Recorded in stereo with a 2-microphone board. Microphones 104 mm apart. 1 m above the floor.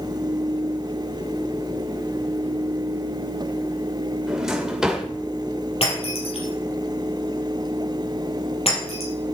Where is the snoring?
No snoring in this recording.